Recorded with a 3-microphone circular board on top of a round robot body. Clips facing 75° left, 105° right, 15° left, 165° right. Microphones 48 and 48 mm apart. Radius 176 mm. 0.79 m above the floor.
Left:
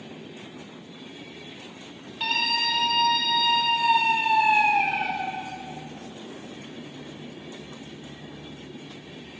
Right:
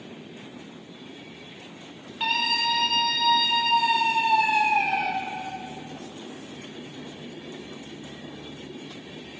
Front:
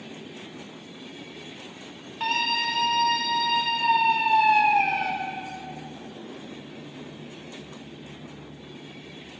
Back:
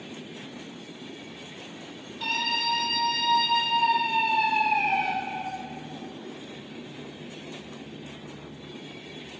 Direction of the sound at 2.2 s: 25° right.